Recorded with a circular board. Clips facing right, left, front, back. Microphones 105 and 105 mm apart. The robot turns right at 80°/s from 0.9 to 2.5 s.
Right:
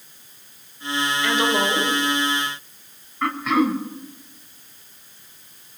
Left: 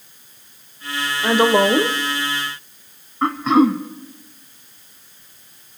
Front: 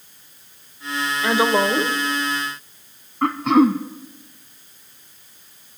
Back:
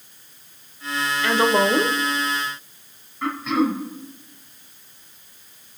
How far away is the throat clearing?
About 1.5 m.